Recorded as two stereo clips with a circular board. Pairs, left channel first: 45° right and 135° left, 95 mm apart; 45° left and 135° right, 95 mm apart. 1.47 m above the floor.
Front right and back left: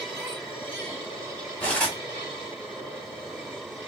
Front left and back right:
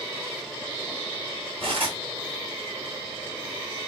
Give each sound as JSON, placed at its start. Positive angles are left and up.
{"t": 1.6, "sound": "cutlery clinking", "azimuth_deg": -120, "distance_m": 2.5}